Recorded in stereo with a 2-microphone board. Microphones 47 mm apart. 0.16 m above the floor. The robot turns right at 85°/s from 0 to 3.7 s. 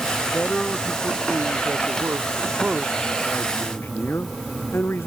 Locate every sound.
0.3 s a man speaking: 135° left; by 5.1 s 65° left